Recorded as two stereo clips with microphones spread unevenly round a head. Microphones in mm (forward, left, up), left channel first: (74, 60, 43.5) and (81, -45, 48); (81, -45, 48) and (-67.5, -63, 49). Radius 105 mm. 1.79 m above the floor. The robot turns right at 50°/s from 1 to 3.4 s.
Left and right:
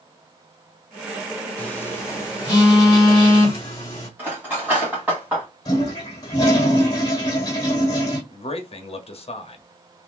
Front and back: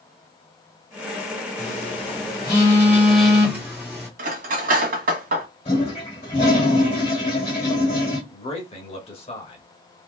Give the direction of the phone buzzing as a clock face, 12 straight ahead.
11 o'clock.